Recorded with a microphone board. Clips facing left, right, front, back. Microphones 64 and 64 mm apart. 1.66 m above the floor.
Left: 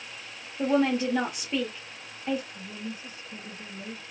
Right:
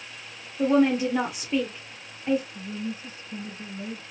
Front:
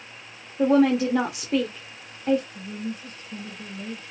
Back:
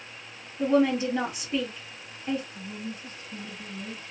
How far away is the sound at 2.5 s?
About 1.9 m.